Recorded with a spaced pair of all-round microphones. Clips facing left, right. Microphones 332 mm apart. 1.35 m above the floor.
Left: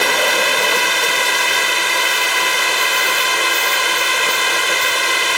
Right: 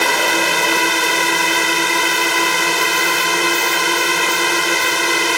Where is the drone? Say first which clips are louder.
Even; 50° right (ahead or behind).